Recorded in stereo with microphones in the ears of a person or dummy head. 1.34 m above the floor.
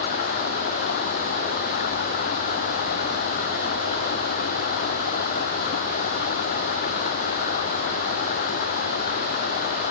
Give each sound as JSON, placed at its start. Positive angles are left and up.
{"t": 0.0, "sound": "running water", "side_deg": 55}